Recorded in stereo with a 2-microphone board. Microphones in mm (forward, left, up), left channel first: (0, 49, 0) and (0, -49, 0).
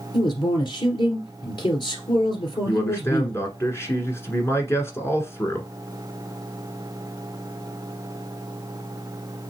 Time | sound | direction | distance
0.1 | a man speaking | 50° left (ahead or behind) | 2 m
2.6 | a man speaking | 30° left (ahead or behind) | 1.2 m